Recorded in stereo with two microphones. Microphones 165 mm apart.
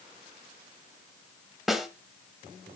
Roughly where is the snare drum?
Centre.